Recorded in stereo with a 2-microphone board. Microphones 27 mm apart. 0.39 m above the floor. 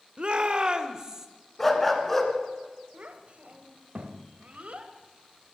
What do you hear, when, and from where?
0.2 s a shout: 40° right (ahead or behind), 1.0 m; by 1.3 s 20° right (ahead or behind), 1.4 m
1.6 s a dog barking: 10° left (ahead or behind), 1.8 m
2.9 s a child speaking: 60° right (ahead or behind), 1.5 m